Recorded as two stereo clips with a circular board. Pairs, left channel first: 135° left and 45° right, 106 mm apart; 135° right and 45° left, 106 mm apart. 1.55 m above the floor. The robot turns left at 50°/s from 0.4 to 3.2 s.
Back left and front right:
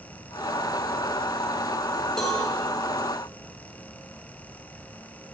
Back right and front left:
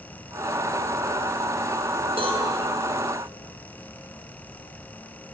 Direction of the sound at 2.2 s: 50° left.